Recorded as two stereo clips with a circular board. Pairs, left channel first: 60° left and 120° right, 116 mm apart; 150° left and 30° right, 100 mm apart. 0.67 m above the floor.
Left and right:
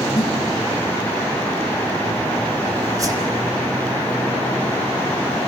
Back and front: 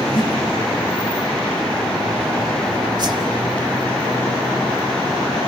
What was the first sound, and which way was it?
A snare drum, 120° left.